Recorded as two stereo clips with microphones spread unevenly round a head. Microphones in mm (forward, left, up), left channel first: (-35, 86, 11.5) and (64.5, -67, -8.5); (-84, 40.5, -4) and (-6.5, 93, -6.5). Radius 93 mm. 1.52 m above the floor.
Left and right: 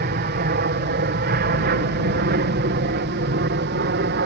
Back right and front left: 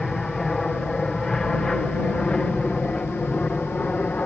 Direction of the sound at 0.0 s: 60° right.